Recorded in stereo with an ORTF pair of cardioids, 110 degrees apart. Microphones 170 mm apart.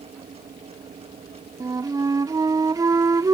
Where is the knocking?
I don't hear knocking.